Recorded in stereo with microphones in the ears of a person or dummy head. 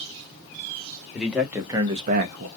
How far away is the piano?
No piano in this recording.